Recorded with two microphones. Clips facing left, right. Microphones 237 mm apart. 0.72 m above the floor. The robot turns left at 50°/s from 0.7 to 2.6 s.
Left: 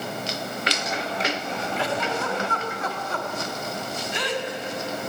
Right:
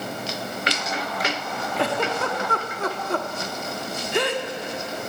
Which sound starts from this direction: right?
A giggle, at 1.8 s.